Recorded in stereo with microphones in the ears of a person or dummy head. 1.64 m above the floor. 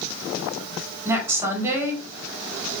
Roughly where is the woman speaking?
Centre.